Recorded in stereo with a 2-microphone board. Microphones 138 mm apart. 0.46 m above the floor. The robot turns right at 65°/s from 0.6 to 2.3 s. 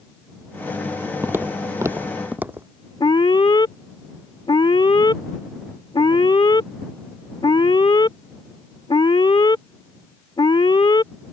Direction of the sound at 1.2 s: 15° right (ahead or behind).